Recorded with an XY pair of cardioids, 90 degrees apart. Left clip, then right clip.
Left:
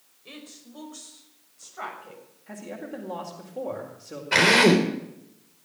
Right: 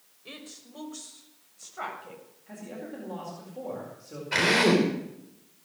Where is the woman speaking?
15° right, 5.5 m; by 2.2 s 5° right, 6.5 m.